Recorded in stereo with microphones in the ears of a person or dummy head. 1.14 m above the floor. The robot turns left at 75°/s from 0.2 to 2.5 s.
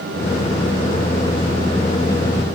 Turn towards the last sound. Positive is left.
No sound to turn to.